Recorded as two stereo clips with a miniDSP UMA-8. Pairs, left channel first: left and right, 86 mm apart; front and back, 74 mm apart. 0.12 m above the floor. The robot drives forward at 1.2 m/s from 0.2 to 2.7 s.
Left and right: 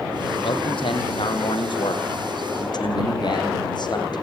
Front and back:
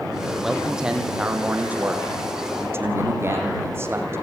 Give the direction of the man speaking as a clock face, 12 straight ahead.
9 o'clock.